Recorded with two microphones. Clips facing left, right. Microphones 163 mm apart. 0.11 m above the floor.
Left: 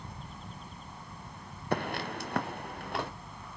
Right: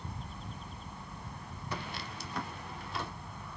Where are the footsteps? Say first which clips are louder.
Left 10 dB; 65° left (ahead or behind), 0.7 m; by 3.1 s 70° left (ahead or behind), 2 m.